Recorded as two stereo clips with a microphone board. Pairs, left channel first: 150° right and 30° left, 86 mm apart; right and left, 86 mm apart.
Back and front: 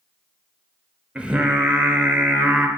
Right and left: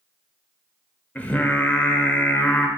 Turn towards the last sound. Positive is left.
turn(degrees=-35)